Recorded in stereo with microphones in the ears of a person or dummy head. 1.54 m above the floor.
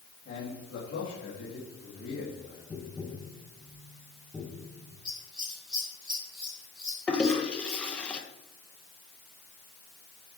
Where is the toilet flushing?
5° left (ahead or behind), 1.2 m.